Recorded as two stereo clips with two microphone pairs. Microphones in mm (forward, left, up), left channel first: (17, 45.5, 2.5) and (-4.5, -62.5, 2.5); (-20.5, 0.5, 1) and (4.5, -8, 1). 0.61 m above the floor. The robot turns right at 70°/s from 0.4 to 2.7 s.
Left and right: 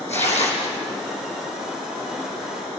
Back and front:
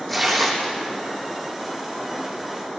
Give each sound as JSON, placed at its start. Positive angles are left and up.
{"t": 0.1, "sound": "tearing paper", "azimuth_deg": 70, "distance_m": 4.5}